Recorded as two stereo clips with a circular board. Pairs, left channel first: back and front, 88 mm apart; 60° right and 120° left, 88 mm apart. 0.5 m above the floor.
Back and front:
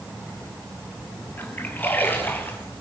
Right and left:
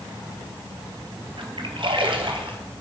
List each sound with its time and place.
1.4 s a splash: 115° left, 2 m